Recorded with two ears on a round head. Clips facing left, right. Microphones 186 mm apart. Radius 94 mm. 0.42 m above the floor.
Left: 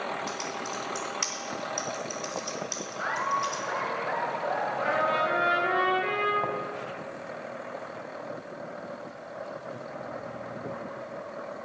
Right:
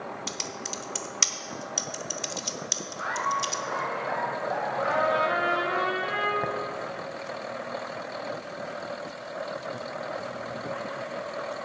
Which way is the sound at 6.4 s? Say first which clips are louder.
Right 1 dB; 15° right (ahead or behind).